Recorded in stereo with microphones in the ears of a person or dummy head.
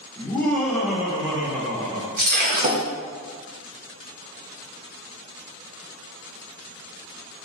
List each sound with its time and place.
0.2 s laughter: 10° left (ahead or behind), 1.1 m; by 2.1 s 40° right (ahead or behind), 1.1 m
2.2 s breaking glass: 45° right (ahead or behind), 0.6 m